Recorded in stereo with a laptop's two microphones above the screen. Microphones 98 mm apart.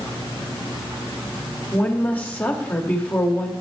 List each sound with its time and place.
1.7 s a woman speaking: 15° left (ahead or behind), 0.7 m